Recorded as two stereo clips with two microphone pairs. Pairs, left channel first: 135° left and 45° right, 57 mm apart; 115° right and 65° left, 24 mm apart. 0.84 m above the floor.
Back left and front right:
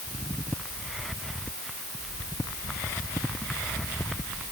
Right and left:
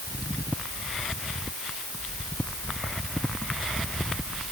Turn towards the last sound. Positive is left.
No sound to turn to.